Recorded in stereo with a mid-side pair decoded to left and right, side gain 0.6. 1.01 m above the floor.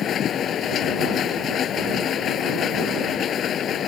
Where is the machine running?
50° left.